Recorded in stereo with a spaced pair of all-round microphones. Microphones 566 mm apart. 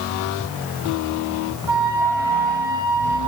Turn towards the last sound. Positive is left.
turn(degrees=-50)  # may be behind; listen again after turning